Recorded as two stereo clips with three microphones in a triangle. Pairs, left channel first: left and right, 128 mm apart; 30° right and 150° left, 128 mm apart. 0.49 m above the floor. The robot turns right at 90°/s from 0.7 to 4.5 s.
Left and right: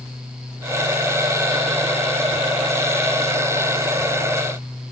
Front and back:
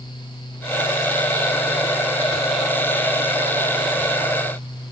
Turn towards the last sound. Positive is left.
No sound to turn to.